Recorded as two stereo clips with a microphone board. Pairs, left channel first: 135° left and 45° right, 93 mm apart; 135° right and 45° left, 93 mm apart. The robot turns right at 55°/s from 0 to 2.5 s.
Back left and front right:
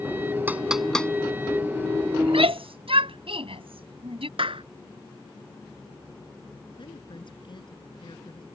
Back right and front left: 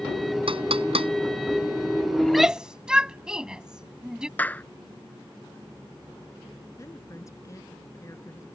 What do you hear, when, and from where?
0.5 s knocking: 25° left; by 1.1 s 60° left
2.2 s a shout: 55° right; by 4.3 s 40° right
4.4 s a clap: 65° right
6.8 s a woman speaking: 165° left